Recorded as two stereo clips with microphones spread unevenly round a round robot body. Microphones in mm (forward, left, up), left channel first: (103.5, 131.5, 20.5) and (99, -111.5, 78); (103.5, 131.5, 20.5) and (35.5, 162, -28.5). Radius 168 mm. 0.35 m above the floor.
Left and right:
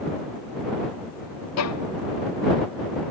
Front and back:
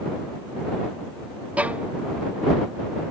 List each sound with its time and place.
1.6 s a violin: 85° left